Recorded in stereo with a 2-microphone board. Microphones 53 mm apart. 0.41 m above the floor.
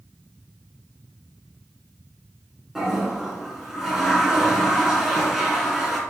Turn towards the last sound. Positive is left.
turn(degrees=-5)  # may be behind; listen again after turning